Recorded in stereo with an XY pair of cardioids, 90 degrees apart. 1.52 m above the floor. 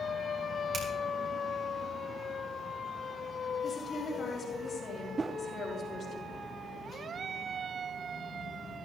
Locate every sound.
0.7 s a finger snap: 60° right, 4.5 m
3.6 s a woman speaking: 55° left, 4.5 m
5.2 s a whoosh: 30° right, 0.5 m